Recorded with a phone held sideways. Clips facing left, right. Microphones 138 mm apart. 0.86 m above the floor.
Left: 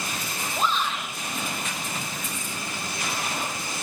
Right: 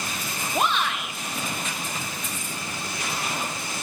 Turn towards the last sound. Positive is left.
turn(degrees=-70)  # may be behind; listen again after turning